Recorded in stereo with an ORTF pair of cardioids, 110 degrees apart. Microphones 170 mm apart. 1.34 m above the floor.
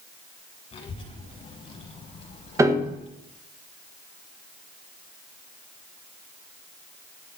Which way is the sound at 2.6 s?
20° right.